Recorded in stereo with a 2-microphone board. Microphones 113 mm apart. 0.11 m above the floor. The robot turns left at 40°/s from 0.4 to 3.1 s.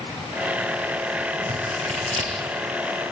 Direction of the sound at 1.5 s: 80° right.